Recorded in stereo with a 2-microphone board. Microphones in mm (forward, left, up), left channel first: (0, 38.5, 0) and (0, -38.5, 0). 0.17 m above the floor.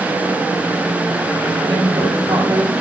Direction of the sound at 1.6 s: 75° right (ahead or behind).